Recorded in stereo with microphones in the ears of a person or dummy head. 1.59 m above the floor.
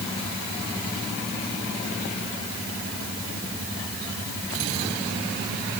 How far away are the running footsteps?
I don't hear running footsteps.